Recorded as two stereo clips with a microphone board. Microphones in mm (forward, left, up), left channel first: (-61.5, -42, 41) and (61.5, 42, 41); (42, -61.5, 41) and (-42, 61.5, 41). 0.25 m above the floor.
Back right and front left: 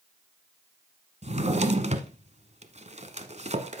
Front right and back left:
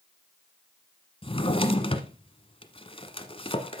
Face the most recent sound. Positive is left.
turn(degrees=-5)